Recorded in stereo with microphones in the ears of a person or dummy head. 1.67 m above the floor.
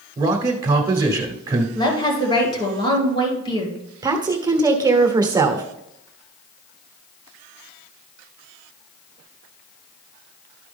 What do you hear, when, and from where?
0.2 s a man speaking: 15° right (ahead or behind), 1.0 m
1.8 s a woman speaking: 25° left (ahead or behind), 2.5 m
4.0 s a woman speaking: 20° right (ahead or behind), 1.0 m